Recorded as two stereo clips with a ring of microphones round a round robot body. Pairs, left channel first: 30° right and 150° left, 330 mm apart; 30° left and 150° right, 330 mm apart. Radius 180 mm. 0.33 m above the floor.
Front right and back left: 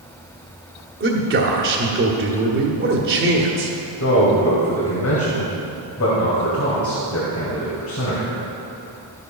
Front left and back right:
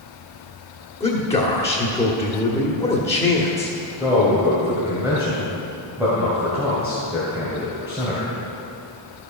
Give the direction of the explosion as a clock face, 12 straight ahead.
I don't hear an explosion.